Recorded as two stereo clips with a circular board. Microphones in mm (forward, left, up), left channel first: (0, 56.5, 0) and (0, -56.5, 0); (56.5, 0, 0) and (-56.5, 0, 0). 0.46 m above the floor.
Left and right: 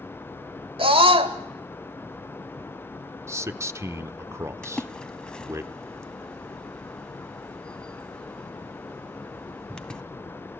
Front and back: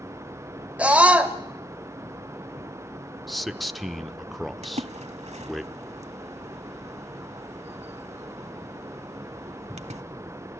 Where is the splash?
170° left, 1.0 m.